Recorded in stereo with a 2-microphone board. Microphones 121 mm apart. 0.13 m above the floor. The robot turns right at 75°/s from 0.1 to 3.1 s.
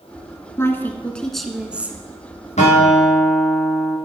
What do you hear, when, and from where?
0.6 s a woman speaking: 20° left (ahead or behind), 1.1 m; by 2.0 s 15° right (ahead or behind), 1.1 m
2.6 s a guitar: 70° left, 5 m; by 4.0 s 110° left, 5 m